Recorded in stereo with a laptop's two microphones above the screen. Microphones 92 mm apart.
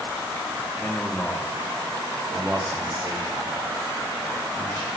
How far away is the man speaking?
About 1.3 m.